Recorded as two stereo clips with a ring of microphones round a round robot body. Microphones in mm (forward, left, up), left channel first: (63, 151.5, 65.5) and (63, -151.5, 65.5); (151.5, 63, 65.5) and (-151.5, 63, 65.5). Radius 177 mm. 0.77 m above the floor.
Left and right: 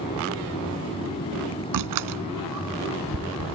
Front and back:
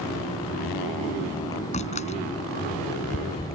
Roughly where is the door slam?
Right.